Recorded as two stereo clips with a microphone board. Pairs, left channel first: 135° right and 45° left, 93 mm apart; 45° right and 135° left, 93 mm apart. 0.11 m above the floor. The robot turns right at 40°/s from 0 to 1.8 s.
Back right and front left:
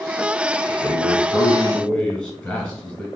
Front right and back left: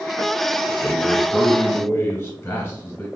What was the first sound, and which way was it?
A man speaking, 115° right.